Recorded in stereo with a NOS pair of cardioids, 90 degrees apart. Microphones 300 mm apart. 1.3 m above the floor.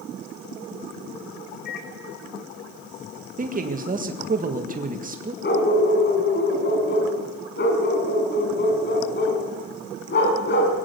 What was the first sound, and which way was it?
A microwave, 35° left.